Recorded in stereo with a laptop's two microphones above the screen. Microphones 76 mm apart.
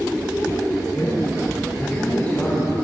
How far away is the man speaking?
About 7.5 m.